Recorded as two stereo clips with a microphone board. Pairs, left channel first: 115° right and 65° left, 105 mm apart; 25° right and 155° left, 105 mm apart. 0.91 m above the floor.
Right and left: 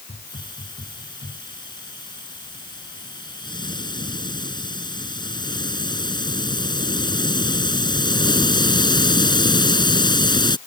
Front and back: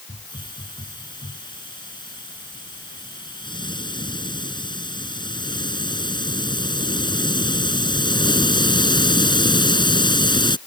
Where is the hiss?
65° right.